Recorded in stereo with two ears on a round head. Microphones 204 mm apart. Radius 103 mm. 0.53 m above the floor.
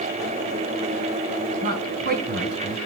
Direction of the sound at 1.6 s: 40° right (ahead or behind).